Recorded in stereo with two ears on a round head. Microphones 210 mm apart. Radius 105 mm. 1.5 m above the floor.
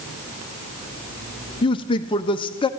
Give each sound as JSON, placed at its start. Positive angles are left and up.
{"t": 1.6, "sound": "a man speaking", "side_deg": 20, "distance_m": 0.7}